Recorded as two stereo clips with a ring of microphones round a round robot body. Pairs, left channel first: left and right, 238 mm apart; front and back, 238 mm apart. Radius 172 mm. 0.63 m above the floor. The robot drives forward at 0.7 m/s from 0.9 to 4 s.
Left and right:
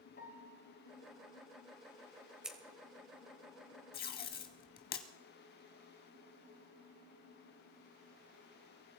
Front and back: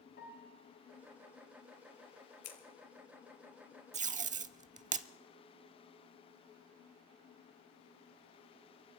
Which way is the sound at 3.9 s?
130° left.